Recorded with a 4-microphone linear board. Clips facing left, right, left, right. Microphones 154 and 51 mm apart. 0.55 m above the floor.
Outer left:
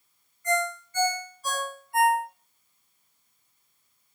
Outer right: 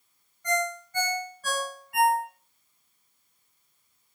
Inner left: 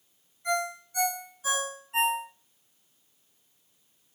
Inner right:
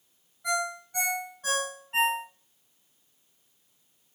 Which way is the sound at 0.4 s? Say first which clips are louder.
Outer left 1 dB, even; 70° right (ahead or behind).